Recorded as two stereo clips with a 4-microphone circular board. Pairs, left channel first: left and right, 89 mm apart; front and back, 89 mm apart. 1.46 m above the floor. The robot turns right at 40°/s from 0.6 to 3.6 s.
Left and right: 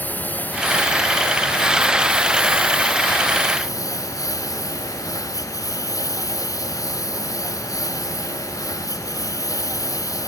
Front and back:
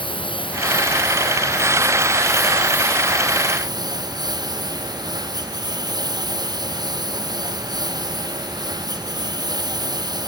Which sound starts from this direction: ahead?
A lawn mower, at 0.0 s.